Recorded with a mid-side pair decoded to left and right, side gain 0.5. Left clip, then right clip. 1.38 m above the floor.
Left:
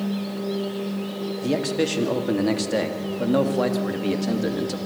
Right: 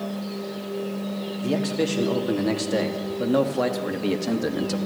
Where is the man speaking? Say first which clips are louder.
Left 1 dB; 20° left, 3 m; by 4.8 s 20° right, 2.5 m.